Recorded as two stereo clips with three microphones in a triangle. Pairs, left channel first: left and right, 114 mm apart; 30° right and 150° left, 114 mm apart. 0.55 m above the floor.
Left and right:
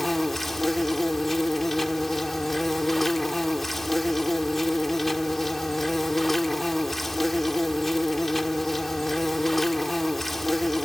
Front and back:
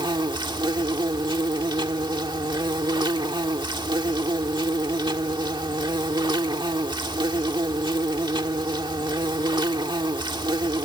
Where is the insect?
Straight behind.